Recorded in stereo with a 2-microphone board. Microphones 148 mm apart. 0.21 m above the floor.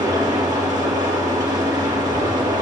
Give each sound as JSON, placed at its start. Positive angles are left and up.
{"t": 0.0, "sound": "an engine running", "side_deg": -30, "distance_m": 4.0}